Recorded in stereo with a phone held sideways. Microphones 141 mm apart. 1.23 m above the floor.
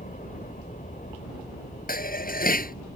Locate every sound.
0.0 s a helicopter: 70° left (ahead or behind); by 3.0 s 75° left (ahead or behind)
1.9 s dishes clattering: 90° left